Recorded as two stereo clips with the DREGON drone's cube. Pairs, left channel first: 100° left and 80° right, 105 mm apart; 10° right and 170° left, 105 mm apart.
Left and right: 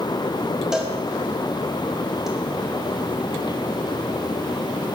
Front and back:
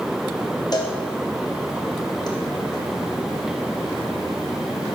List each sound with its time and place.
0.7 s a cowbell: 5° left, 0.9 m